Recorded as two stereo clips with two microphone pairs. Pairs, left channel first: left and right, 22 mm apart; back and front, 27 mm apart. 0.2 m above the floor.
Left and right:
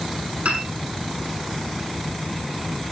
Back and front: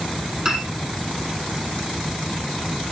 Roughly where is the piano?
Right.